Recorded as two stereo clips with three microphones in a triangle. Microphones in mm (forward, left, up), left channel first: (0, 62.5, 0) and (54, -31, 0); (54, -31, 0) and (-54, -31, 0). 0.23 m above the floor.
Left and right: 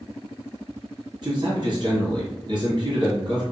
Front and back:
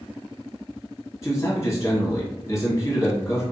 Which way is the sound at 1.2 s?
50° right.